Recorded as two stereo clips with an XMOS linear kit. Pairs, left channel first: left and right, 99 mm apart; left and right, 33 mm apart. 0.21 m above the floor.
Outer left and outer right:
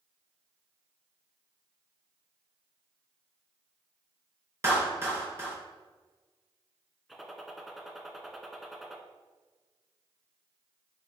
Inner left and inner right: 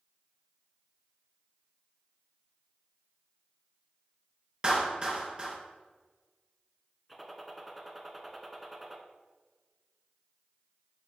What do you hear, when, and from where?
4.6 s a clap: 30° right (ahead or behind), 2 m
7.1 s a gunshot: centre (ahead or behind), 0.8 m